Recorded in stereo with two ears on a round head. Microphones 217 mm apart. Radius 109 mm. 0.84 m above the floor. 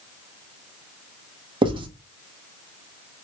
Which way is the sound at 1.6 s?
20° right (ahead or behind).